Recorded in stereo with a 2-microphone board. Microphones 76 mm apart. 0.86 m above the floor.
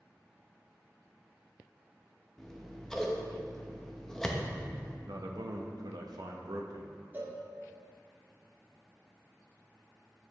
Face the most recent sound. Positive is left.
turn(degrees=-25)  # may be behind; listen again after turning